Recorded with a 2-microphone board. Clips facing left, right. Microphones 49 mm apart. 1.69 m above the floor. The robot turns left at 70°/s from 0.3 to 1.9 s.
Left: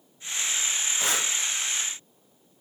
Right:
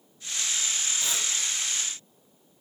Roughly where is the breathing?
Left.